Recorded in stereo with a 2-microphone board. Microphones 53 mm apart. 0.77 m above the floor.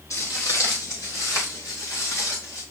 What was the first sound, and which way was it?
Footsteps, 70° left (ahead or behind).